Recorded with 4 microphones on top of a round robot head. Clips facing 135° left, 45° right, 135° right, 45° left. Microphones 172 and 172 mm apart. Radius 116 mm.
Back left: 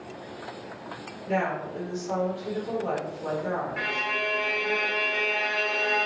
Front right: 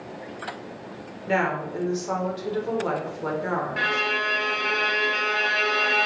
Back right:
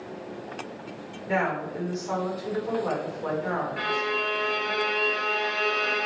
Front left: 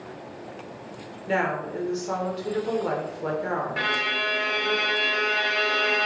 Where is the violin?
10° left, 0.6 m.